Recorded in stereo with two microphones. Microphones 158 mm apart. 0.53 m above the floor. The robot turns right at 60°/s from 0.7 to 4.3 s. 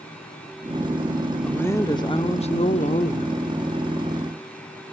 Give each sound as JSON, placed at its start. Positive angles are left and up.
{"t": 1.4, "sound": "a woman speaking", "azimuth_deg": 10, "distance_m": 0.9}